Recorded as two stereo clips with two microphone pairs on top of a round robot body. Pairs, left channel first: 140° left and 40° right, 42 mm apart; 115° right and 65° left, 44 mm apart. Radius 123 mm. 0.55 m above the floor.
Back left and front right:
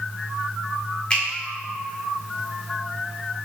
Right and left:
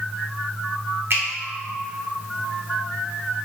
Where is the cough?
No cough in this recording.